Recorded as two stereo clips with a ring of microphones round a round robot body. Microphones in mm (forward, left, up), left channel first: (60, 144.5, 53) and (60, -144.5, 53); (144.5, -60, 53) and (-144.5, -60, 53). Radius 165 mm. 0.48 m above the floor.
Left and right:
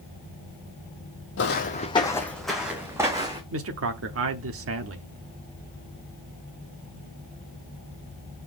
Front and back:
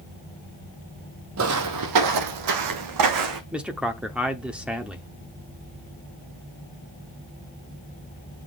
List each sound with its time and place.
1.4 s footsteps: 140° left, 0.7 m; by 3.4 s 170° right, 1.5 m
3.5 s a man speaking: 95° right, 0.9 m